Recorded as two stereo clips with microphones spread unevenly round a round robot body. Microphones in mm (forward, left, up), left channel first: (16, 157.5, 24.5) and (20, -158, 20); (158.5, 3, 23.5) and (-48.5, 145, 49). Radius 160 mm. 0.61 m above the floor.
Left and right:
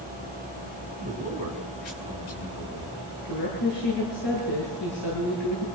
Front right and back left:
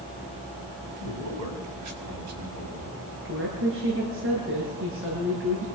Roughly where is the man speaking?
Behind left.